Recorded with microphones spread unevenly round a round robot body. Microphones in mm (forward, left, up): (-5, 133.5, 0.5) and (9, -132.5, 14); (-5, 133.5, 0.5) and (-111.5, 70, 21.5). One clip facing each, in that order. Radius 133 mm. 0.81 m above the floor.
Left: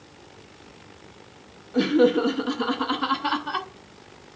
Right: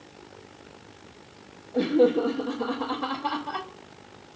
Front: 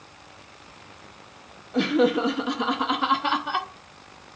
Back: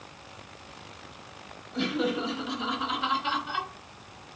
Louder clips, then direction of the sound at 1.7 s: Left 2 dB, front 8 dB; 35° left.